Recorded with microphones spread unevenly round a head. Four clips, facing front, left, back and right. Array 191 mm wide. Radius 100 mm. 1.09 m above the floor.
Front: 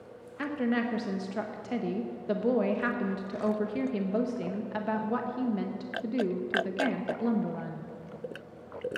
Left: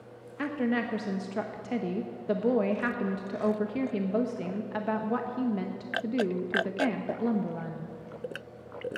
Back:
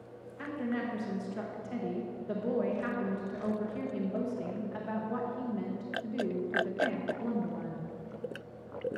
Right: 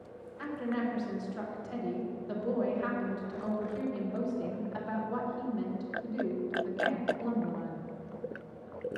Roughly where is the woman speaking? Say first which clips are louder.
Left 5 dB, front 5 dB; ahead left.